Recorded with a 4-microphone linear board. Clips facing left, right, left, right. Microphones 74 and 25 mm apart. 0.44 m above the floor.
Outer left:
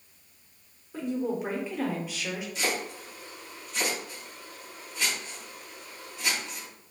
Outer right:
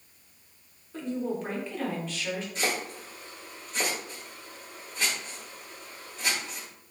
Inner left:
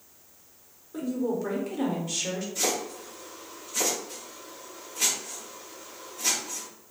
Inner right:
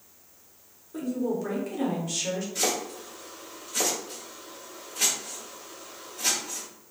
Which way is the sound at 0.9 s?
10° left (ahead or behind).